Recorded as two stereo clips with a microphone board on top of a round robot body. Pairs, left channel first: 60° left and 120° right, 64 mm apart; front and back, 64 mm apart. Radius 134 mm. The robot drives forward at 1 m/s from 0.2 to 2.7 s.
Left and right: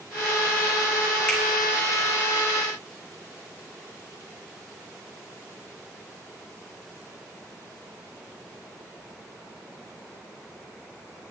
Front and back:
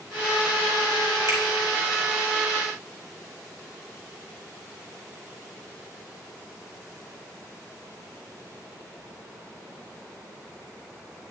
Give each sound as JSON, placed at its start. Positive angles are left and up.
{"t": 1.3, "sound": "a finger snap", "azimuth_deg": 135, "distance_m": 2.5}